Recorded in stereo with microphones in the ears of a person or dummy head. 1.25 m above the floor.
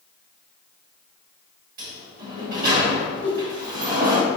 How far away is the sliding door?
About 1.0 m.